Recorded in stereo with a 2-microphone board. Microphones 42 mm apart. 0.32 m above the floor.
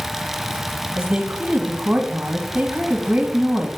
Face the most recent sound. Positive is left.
turn(degrees=-35)  # may be behind; listen again after turning